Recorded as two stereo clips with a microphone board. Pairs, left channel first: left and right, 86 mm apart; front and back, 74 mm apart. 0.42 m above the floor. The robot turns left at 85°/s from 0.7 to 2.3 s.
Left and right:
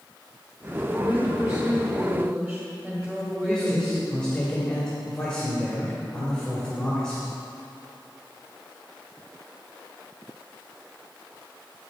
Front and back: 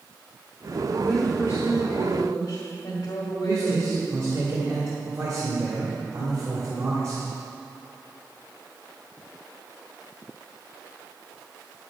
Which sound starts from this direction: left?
A woman speaking, at 0.9 s.